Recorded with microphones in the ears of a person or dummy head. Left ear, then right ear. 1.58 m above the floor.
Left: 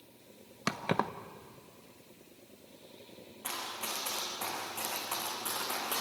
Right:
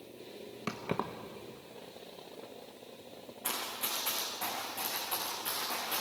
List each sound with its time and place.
0.7 s keys jangling: 30° left (ahead or behind), 0.9 m
3.4 s running footsteps: centre (ahead or behind), 7 m; by 6.0 s 25° left (ahead or behind), 8 m